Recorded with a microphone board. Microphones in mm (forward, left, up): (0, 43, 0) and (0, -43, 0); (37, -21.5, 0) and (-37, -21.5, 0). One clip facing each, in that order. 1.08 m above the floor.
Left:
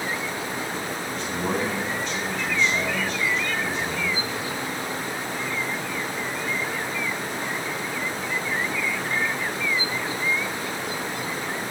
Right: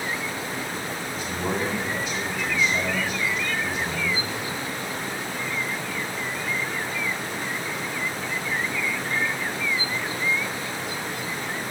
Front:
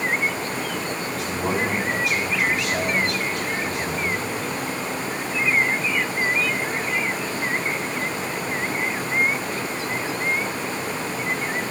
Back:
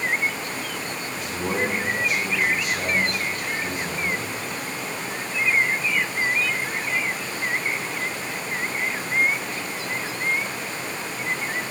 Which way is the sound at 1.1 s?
Straight ahead.